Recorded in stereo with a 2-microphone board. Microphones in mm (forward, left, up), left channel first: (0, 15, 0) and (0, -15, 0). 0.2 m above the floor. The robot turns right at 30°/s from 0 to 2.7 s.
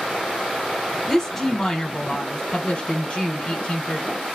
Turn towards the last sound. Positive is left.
turn(degrees=55)